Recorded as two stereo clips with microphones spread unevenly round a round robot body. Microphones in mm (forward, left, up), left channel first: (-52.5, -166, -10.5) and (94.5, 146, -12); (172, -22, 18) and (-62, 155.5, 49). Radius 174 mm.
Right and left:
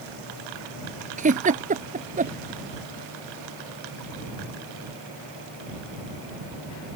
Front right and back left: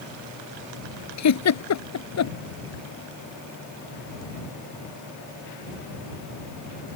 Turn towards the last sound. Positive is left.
turn(degrees=-5)